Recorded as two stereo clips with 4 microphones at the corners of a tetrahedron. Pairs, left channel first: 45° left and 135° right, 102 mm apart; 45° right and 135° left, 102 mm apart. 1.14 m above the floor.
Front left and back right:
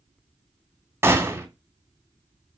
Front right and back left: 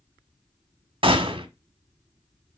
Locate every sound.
1.0 s a gunshot: 160° left, 1.5 m